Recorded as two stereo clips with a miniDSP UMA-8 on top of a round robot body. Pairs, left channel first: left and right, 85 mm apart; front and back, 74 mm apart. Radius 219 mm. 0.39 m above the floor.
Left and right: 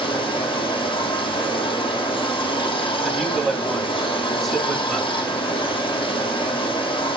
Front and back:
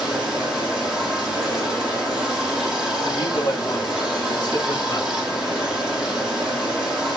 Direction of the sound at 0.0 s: 95° left.